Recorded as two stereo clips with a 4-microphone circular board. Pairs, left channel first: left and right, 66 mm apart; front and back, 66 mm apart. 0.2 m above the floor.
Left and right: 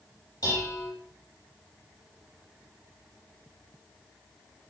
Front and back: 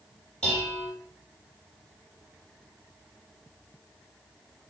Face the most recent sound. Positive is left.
turn(degrees=75)